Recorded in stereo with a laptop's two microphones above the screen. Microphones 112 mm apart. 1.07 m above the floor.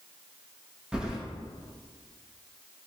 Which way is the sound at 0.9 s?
10° right (ahead or behind).